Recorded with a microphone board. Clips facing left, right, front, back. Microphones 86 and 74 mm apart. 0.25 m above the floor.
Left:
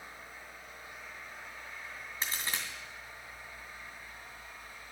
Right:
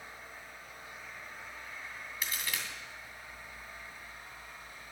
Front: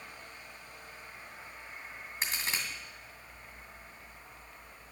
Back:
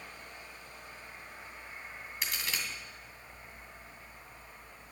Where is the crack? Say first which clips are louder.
Left 1 dB, front 2 dB; 45° left, 2.5 m.